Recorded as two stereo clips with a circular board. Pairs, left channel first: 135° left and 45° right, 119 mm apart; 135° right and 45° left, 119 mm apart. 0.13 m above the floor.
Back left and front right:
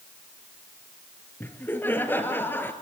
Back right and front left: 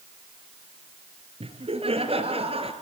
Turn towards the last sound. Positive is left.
turn(degrees=65)